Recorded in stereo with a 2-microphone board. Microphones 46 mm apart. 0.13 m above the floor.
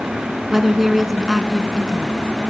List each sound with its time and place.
0.5 s a woman speaking: 5° right (ahead or behind), 1.0 m